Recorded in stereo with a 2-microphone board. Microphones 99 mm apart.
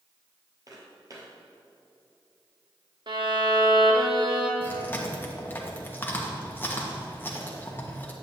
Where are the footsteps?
40° right (ahead or behind), 2.0 m.